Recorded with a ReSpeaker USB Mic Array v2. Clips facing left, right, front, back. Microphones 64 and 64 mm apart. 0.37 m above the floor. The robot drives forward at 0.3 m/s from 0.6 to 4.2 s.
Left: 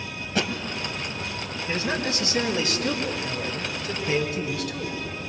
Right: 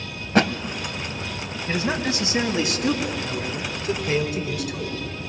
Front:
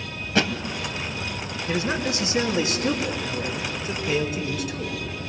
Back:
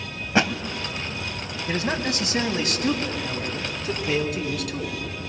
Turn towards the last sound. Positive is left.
turn(degrees=-165)